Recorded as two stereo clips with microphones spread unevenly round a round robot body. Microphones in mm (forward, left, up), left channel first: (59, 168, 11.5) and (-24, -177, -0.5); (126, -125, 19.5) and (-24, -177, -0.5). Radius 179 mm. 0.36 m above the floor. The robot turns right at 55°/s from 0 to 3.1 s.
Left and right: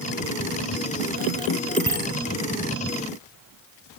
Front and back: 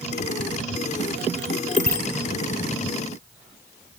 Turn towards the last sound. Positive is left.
turn(degrees=60)